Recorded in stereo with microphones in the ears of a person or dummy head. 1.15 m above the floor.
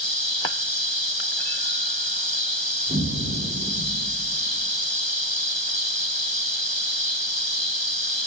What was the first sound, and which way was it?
An explosion, 35° right (ahead or behind).